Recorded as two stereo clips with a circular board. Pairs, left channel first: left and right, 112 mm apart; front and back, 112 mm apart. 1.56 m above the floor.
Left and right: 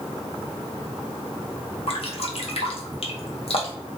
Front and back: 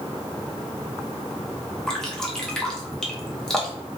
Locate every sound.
1.9 s dripping: 85° left, 0.6 m